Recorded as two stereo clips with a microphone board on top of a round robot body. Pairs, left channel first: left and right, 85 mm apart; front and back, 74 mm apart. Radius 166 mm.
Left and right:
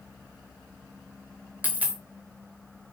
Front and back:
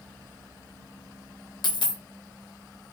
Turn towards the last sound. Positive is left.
turn(degrees=-20)